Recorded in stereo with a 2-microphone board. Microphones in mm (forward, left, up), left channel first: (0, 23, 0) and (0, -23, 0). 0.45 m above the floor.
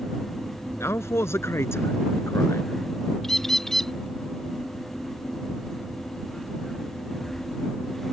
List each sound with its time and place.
0.8 s a man speaking: 80° left
3.2 s a bird: 10° left (ahead or behind)